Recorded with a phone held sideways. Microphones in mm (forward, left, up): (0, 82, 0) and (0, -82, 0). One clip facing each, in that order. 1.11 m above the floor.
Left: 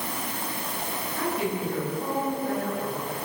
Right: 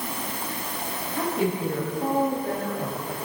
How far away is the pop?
No pop in this recording.